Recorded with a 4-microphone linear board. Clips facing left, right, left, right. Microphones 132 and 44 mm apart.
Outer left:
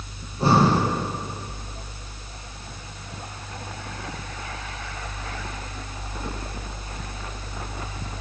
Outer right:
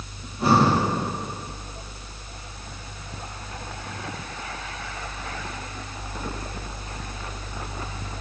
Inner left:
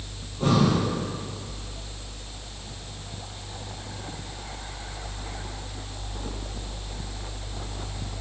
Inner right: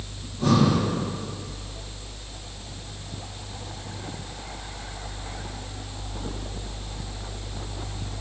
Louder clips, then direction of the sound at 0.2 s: Even, inner right 1 dB; 30° left (ahead or behind).